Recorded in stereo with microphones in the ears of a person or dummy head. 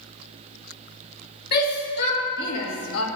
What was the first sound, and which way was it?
A shout, 50° left (ahead or behind).